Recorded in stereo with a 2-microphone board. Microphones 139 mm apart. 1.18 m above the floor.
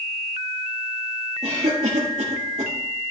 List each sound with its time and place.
1.4 s a cough: 50° right (ahead or behind), 1.8 m